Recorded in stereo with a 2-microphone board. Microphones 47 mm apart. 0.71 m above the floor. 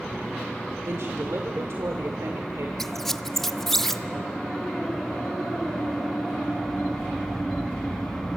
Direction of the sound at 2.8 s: 5° left (ahead or behind).